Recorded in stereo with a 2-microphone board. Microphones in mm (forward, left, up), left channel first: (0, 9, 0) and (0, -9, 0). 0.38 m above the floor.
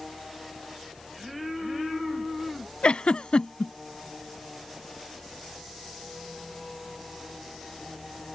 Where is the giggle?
70° left (ahead or behind).